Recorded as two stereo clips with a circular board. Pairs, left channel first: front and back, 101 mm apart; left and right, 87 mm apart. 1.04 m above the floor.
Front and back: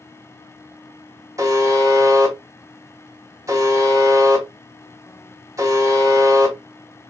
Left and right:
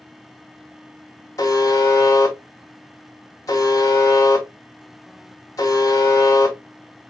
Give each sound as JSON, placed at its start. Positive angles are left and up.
{"t": 1.4, "sound": "a buzzer", "azimuth_deg": 130, "distance_m": 1.2}